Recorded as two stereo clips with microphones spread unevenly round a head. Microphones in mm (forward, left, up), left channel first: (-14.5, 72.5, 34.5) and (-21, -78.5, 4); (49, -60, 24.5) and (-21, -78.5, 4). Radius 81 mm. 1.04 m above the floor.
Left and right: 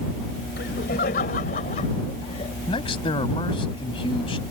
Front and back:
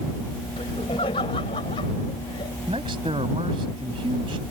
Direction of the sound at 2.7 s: 145° left.